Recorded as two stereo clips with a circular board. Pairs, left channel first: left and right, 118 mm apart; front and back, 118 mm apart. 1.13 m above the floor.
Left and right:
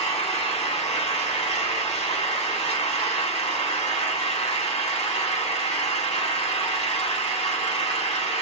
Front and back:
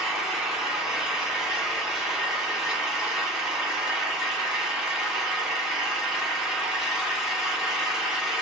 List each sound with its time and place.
0.0 s an engine running: 95° left, 1.2 m